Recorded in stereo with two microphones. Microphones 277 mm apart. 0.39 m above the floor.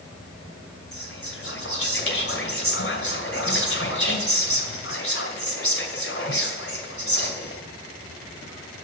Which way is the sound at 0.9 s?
50° left (ahead or behind).